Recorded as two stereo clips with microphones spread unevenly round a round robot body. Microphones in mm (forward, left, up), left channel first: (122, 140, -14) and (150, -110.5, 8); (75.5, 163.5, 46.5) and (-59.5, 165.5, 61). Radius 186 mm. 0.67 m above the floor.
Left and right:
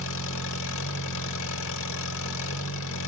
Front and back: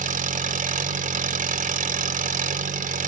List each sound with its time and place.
0.0 s an engine running: 155° left, 1.1 m